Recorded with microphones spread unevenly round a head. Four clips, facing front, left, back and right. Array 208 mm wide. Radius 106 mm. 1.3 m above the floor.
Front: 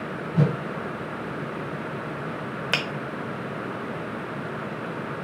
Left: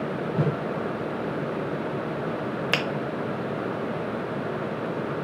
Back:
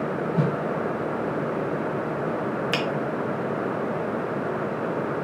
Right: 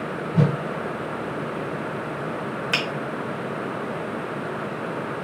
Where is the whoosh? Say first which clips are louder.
Right 5 dB, front 3 dB; 105° right, 1.7 m.